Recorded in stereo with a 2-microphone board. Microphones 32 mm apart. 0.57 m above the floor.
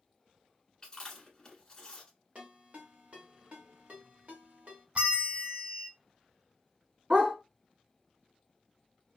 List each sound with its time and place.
0.8 s chewing: 25° left (ahead or behind), 1.1 m
2.4 s a ringtone: 45° right (ahead or behind), 1.3 m
5.0 s a bell: 45° right (ahead or behind), 0.5 m
7.1 s a dog barking: 30° right (ahead or behind), 1.6 m